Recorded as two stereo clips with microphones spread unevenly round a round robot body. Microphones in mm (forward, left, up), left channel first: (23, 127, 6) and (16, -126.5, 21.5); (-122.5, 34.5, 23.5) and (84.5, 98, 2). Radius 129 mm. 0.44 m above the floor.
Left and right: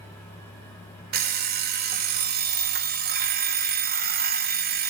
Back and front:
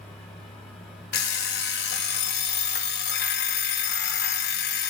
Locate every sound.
1.1 s an alarm clock: 135° right, 0.6 m